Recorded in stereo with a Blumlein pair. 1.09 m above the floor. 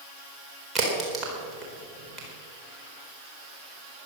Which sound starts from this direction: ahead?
A crack, at 0.8 s.